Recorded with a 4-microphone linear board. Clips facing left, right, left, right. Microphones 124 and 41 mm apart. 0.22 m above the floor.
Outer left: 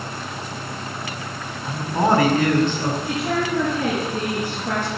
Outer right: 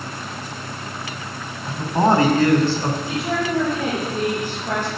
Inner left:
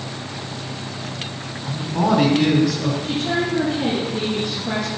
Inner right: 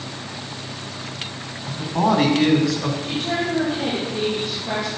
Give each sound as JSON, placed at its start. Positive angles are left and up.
{"t": 1.7, "sound": "a man speaking", "side_deg": -15, "distance_m": 1.4}
{"t": 3.0, "sound": "a woman speaking", "side_deg": -15, "distance_m": 5.5}